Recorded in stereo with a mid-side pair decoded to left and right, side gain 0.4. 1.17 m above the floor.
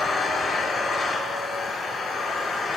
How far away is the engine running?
About 6.5 m.